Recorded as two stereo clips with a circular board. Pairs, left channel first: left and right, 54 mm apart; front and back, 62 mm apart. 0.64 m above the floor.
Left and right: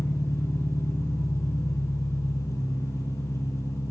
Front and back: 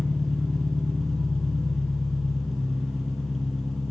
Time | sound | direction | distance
0.0 | an engine running | 90° left | 4 m